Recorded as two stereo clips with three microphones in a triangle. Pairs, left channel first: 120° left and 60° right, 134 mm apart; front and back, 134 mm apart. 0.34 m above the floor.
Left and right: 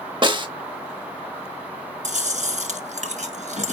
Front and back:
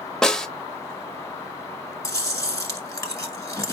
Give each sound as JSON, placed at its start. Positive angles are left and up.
{"t": 0.2, "sound": "a snare drum", "azimuth_deg": -85, "distance_m": 0.6}
{"t": 2.0, "sound": "chewing", "azimuth_deg": -65, "distance_m": 1.2}